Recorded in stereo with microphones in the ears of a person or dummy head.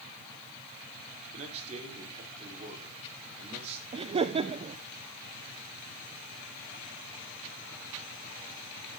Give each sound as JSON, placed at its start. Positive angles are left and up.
{"t": 1.3, "sound": "a man speaking", "side_deg": -35, "distance_m": 4.5}
{"t": 3.9, "sound": "laughter", "side_deg": -30, "distance_m": 0.6}